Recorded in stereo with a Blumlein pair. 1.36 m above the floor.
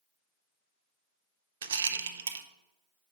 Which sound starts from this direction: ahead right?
A rattle, at 1.6 s.